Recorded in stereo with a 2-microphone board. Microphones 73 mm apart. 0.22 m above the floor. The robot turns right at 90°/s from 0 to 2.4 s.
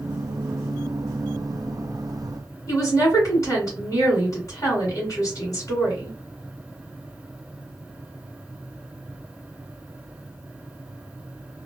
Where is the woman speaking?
45° left (ahead or behind), 1.9 m.